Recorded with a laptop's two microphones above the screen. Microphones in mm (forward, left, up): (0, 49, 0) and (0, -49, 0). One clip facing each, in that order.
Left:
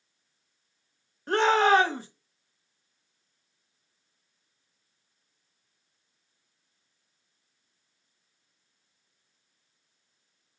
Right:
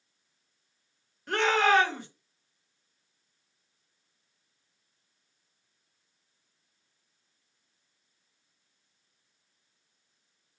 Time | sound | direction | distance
1.3 | a shout | 35° left (ahead or behind) | 1.4 m